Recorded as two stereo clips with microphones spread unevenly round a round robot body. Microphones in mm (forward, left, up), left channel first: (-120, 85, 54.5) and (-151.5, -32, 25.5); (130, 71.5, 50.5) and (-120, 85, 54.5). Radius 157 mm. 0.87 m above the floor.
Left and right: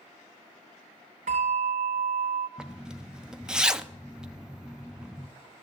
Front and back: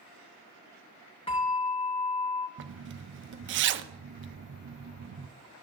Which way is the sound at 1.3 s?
75° right.